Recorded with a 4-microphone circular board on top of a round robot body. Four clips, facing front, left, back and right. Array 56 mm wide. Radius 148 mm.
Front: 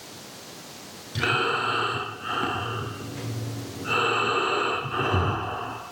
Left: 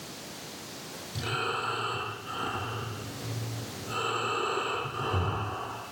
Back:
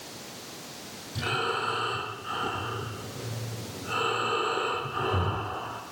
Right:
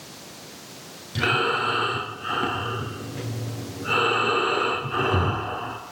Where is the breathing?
60° right, 8 m.